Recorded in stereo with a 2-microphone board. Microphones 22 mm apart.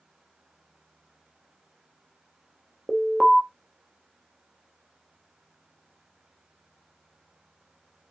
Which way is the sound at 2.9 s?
10° left (ahead or behind).